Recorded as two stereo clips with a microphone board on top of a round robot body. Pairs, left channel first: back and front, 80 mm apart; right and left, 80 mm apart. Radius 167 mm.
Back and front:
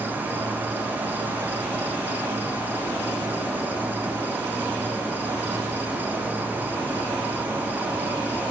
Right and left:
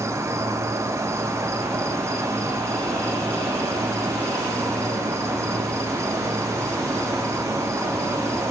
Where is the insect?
60° left, 1.0 m.